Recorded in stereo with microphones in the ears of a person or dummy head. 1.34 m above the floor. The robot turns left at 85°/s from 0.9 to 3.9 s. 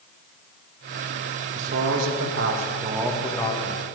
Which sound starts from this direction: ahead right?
A man speaking, at 1.6 s.